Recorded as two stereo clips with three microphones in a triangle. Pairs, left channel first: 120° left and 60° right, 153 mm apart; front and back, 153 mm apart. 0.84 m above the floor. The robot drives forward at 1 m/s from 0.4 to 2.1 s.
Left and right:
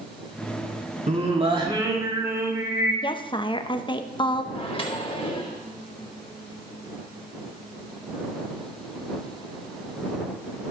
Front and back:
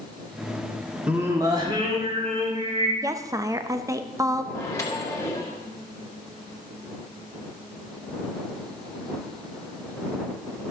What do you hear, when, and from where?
1.1 s singing: 100° right, 1.4 m; by 2.9 s 135° right, 1.9 m
3.0 s a woman speaking: 130° left, 0.6 m
4.5 s a microwave: 70° left, 1.9 m